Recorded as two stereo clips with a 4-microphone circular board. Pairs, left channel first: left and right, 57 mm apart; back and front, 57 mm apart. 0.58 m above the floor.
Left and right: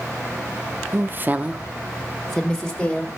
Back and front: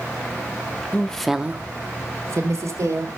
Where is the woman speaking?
120° right, 0.8 m; by 3.1 s 15° left, 2 m.